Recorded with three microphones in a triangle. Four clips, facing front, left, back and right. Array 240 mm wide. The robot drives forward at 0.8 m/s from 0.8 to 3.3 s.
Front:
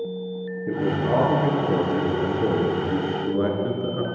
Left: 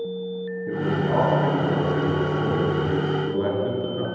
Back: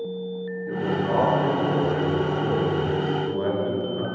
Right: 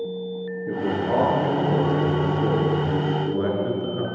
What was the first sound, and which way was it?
A man speaking, straight ahead.